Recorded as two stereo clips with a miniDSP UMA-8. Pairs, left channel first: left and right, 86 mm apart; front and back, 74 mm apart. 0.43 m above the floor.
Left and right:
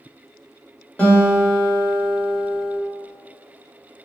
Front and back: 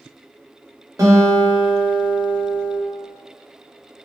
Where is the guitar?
155° left, 1.2 m.